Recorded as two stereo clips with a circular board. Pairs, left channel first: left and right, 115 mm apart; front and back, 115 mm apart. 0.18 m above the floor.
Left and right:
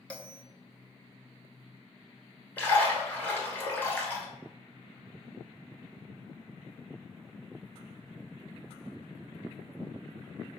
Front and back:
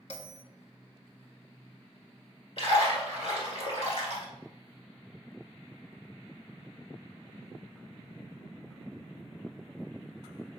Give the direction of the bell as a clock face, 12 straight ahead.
12 o'clock.